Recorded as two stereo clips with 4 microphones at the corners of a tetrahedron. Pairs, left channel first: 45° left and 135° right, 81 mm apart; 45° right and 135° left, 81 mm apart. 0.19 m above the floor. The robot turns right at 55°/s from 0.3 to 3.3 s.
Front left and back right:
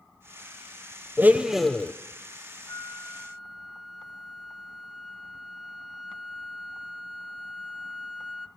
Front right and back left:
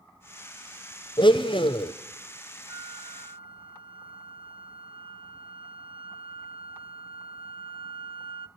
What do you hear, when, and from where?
1.2 s a blender: 70° right, 0.9 m; by 1.9 s 25° right, 0.9 m
2.7 s a flute: 105° left, 0.7 m; by 8.5 s 135° left, 0.7 m